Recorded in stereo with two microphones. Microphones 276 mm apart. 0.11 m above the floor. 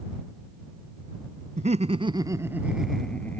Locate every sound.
1.6 s laughter: 30° right (ahead or behind); by 3.4 s 10° left (ahead or behind)